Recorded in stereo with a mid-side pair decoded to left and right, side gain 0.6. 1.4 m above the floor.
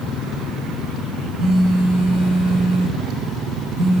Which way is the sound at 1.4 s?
50° right.